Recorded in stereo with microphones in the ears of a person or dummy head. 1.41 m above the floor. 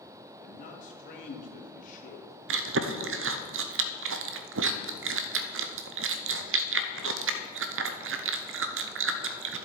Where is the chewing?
55° right (ahead or behind), 0.6 m.